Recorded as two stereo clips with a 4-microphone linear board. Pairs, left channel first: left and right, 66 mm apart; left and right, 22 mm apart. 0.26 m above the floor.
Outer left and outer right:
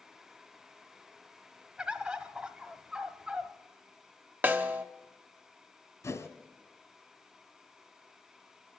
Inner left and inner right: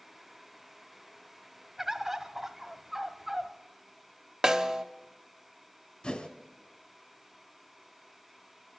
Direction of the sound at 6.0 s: 50° left (ahead or behind).